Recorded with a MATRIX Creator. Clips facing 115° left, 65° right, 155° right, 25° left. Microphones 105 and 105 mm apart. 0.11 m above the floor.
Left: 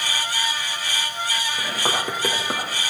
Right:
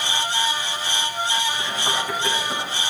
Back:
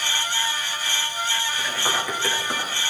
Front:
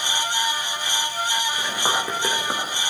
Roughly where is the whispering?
Left.